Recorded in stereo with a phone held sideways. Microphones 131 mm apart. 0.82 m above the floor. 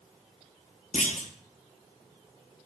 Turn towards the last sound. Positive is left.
turn(degrees=65)  # may be behind; listen again after turning